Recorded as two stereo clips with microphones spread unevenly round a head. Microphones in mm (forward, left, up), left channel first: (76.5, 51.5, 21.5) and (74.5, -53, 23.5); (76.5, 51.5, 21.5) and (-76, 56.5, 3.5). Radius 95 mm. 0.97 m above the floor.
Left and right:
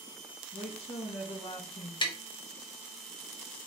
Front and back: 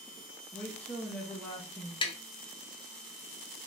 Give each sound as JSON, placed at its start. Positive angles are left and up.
{"t": 0.5, "sound": "a woman speaking", "azimuth_deg": 80, "distance_m": 1.0}
{"t": 2.0, "sound": "tapping", "azimuth_deg": 55, "distance_m": 0.8}